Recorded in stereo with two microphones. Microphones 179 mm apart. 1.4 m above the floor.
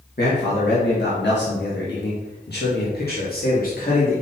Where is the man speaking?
65° left (ahead or behind), 1.7 m; by 4.2 s 50° left (ahead or behind), 2.5 m.